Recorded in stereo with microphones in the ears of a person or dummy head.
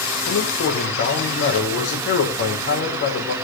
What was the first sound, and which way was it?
A man speaking, 55° left (ahead or behind).